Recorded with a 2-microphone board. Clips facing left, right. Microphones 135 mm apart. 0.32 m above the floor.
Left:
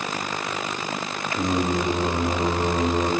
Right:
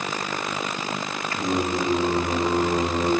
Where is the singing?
20° left (ahead or behind), 1.8 m.